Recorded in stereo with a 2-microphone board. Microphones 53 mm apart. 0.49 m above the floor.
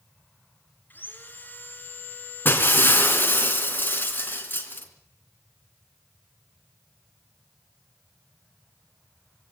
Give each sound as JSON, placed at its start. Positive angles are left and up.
{"t": 0.9, "sound": "sawing", "side_deg": 40, "distance_m": 2.5}
{"t": 2.5, "sound": "breaking glass", "side_deg": 40, "distance_m": 3.5}